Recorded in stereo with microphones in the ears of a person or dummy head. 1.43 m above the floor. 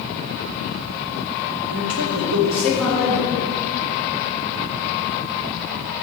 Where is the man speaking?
75° right (ahead or behind), 2 m.